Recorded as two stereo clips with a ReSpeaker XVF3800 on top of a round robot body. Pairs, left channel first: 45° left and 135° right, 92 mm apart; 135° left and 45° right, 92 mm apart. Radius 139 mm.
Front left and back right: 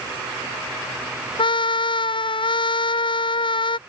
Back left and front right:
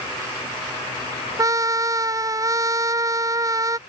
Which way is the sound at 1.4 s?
10° left.